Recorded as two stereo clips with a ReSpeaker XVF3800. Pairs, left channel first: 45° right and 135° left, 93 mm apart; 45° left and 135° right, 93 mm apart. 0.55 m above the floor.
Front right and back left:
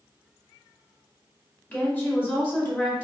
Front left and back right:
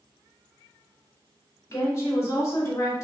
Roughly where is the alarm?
No alarm in this recording.